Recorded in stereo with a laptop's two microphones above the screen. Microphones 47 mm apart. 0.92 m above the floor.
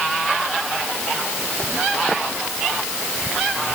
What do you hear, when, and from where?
Only background noise.